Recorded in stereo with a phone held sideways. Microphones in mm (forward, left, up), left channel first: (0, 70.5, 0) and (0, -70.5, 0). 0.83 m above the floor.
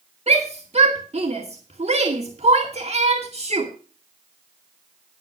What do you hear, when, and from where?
0.3 s a shout: 50° right (ahead or behind), 2.0 m